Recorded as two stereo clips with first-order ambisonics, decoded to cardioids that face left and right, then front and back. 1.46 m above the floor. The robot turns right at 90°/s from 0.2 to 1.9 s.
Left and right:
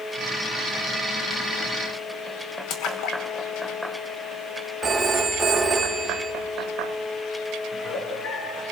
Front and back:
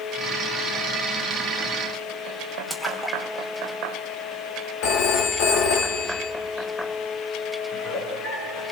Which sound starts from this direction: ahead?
A phone ringing, at 4.8 s.